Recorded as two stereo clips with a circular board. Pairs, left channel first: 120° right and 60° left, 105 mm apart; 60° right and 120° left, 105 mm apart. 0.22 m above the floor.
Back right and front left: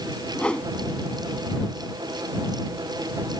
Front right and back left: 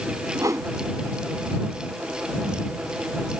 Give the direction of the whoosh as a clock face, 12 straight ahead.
7 o'clock.